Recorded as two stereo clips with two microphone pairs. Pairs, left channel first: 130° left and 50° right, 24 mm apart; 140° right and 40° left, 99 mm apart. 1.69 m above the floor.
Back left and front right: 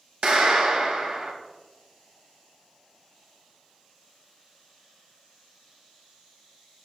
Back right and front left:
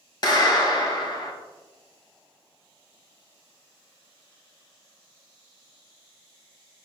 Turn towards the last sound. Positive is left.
turn(degrees=-95)